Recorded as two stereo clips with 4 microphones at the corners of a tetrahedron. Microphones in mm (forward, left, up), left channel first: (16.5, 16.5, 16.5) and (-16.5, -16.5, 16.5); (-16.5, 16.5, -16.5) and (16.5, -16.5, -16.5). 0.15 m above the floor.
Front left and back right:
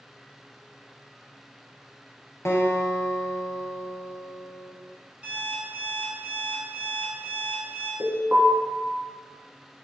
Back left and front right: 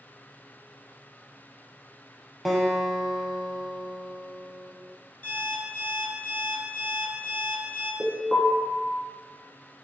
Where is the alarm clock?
175° left, 1.1 m.